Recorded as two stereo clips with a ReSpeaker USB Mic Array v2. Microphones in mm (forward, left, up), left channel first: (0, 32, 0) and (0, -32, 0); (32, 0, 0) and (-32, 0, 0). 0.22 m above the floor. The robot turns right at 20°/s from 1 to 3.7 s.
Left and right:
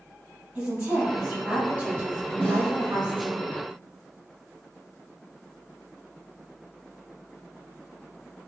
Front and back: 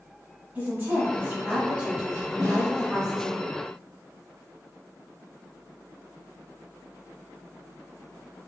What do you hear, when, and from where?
0.6 s a woman speaking: 145° right, 1.2 m; by 3.4 s 95° right, 1.2 m
2.4 s a snare drum: 160° left, 1.8 m; by 2.7 s 165° left, 1.8 m